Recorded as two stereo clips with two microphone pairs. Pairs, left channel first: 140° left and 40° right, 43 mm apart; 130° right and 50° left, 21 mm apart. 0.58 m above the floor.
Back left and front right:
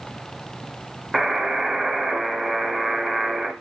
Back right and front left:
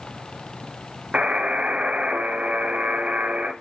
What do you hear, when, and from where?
1.1 s a buzzer: 45° left, 0.8 m